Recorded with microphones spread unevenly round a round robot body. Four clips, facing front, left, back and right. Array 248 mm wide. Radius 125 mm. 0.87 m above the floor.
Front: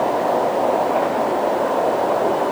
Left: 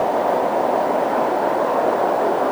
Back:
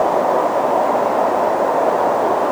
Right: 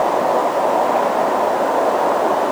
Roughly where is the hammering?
No hammering in this recording.